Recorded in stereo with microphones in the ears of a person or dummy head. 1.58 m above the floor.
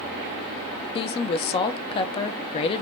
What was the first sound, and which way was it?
A woman speaking, 30° left (ahead or behind).